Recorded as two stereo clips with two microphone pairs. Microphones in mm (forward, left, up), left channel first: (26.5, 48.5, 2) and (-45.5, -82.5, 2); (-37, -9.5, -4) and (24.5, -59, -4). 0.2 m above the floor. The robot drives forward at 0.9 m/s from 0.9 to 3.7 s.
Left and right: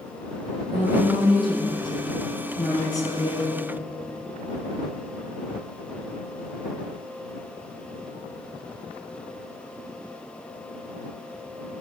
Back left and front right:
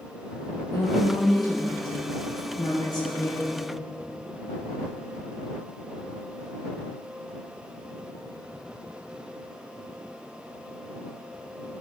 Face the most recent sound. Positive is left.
turn(degrees=130)